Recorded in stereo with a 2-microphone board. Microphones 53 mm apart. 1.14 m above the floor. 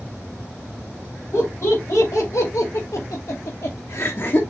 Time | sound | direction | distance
1.3 | laughter | 55° left (ahead or behind) | 2.5 m